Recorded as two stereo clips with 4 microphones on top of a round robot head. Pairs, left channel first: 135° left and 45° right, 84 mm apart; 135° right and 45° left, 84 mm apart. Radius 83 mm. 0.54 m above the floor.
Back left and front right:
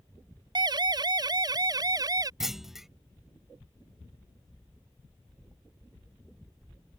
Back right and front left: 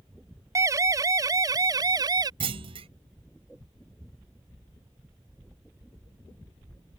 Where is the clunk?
40° left.